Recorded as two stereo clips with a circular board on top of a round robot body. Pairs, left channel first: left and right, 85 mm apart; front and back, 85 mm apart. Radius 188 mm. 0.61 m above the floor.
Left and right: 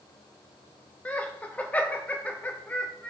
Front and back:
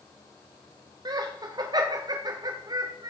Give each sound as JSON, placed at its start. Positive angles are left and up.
{"t": 1.1, "sound": "laughter", "azimuth_deg": 160, "distance_m": 0.9}